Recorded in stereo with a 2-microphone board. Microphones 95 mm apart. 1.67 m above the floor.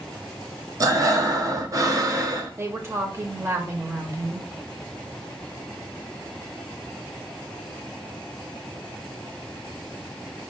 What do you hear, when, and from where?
0.8 s breathing: 40° right (ahead or behind), 0.5 m
2.6 s a woman speaking: 25° right (ahead or behind), 0.6 m